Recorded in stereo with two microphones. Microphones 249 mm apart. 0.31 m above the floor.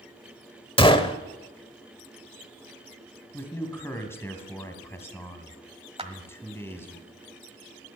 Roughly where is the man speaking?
Centre.